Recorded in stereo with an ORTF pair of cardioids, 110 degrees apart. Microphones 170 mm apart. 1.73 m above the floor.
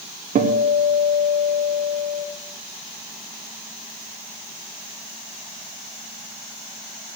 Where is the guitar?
50° right, 1.7 m.